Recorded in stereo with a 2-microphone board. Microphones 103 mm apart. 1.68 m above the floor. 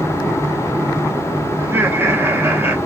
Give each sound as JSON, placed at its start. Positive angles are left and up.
{"t": 1.6, "sound": "laughter", "side_deg": -20, "distance_m": 0.9}